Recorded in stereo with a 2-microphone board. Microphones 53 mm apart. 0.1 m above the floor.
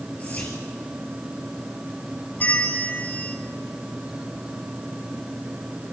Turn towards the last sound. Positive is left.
turn(degrees=30)  # may be behind; listen again after turning